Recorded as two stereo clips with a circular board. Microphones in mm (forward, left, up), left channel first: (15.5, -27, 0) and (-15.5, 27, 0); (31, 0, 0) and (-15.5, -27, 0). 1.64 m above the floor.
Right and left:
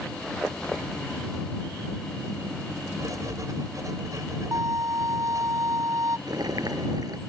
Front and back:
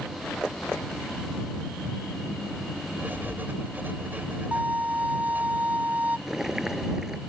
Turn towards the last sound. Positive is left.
turn(degrees=130)